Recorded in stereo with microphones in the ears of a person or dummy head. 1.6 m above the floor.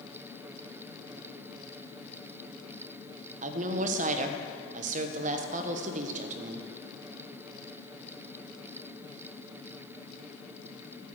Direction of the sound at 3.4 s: 50° right (ahead or behind).